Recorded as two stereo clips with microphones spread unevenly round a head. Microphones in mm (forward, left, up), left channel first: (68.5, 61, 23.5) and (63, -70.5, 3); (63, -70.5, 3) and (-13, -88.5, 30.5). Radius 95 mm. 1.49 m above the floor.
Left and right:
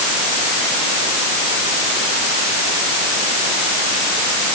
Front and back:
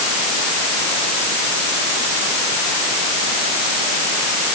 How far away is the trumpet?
I don't hear a trumpet.